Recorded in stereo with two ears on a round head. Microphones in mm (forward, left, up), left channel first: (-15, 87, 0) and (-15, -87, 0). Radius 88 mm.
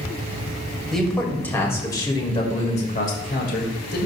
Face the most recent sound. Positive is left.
turn(degrees=55)  # may be behind; listen again after turning